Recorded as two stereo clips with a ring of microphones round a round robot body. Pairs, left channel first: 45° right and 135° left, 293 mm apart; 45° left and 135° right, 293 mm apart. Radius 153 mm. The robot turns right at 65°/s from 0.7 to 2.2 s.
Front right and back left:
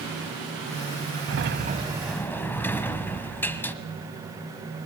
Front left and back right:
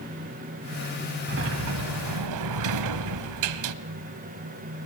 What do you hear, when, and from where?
1.3 s a sliding door: 175° left, 0.9 m; by 3.8 s 130° right, 0.9 m